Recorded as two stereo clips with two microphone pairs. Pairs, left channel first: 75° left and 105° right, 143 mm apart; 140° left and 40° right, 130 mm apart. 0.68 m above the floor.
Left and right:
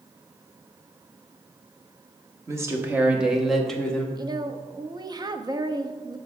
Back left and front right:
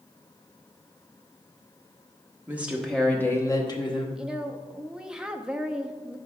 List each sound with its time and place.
2.5 s a woman speaking: 90° right, 0.9 m; by 4.0 s 155° left, 1.2 m
4.2 s a woman speaking: 120° right, 0.5 m